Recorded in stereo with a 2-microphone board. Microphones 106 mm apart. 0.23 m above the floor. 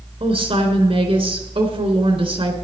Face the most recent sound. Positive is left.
turn(degrees=-65)  # may be behind; listen again after turning